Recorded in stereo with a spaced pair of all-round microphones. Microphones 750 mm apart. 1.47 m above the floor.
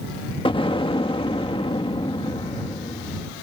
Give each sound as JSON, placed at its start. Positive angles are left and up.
{"t": 0.5, "sound": "an explosion", "side_deg": 5}